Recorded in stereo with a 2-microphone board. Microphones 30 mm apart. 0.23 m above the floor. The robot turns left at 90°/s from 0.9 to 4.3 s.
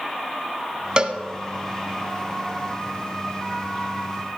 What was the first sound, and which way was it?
A cowbell, 35° right (ahead or behind).